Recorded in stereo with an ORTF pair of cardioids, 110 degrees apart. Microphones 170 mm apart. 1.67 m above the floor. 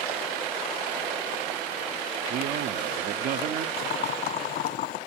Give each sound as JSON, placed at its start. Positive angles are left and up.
{"t": 2.3, "sound": "a man speaking", "azimuth_deg": -60, "distance_m": 0.9}
{"t": 3.8, "sound": "boiling", "azimuth_deg": 65, "distance_m": 1.7}